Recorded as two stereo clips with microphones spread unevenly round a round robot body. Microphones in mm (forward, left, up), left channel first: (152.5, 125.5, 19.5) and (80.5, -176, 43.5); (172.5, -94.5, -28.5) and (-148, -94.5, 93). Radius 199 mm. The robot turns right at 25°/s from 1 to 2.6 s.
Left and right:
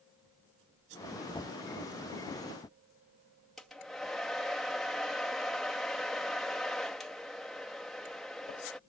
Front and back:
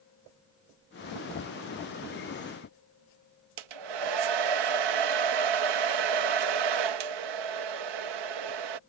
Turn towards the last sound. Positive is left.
turn(degrees=165)